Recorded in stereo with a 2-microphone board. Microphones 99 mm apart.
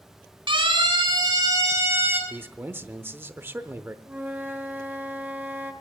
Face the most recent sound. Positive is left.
turn(degrees=-20)  # may be behind; listen again after turning